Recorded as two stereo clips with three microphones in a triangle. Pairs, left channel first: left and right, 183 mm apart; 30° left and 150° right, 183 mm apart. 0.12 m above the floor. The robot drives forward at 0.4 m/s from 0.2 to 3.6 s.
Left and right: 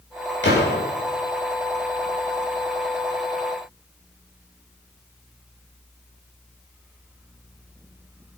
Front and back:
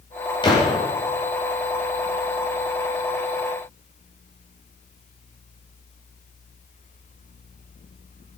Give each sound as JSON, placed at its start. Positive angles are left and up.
{"t": 0.4, "sound": "a gunshot", "azimuth_deg": 95, "distance_m": 6.5}